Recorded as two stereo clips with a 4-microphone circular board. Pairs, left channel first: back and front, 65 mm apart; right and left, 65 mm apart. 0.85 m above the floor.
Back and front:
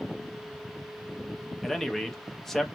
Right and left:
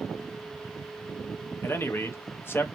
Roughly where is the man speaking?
Right.